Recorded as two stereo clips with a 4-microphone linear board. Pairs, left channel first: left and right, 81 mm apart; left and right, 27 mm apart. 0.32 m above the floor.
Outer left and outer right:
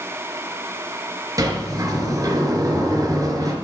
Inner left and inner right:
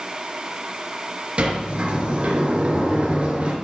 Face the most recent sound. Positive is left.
turn(degrees=-45)  # may be behind; listen again after turning